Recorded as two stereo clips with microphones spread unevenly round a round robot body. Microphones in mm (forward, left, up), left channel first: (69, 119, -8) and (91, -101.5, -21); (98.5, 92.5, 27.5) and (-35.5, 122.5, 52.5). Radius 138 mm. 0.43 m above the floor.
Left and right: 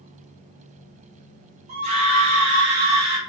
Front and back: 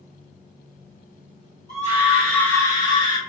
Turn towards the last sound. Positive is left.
turn(degrees=-15)